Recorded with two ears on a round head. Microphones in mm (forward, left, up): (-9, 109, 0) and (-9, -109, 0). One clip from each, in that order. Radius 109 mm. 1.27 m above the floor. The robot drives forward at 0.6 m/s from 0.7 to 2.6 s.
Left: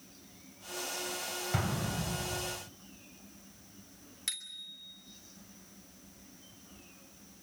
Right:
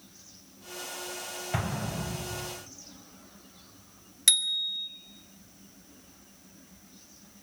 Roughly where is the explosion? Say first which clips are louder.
Right 4 dB; centre.